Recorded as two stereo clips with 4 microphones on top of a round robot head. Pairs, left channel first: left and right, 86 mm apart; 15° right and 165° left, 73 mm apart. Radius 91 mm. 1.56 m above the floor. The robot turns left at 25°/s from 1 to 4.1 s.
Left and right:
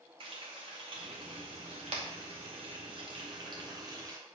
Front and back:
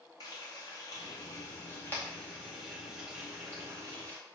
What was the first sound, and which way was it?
Frying, 60° right.